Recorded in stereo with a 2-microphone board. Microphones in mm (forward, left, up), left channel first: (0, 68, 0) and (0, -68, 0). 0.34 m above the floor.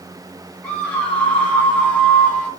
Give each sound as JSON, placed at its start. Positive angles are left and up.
{"t": 0.6, "sound": "a scream", "side_deg": 10, "distance_m": 5.5}